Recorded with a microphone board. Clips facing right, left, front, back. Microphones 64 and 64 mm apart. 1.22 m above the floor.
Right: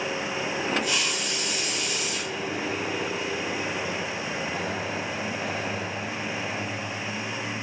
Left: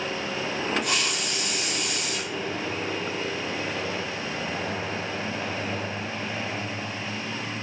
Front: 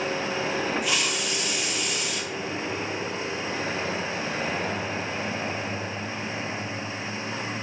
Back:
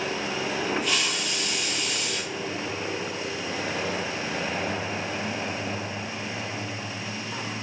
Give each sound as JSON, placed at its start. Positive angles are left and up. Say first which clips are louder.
{"t": 0.8, "sound": "a hiss", "louder": "even, front 1 dB", "azimuth_deg": 85, "distance_m": 0.5}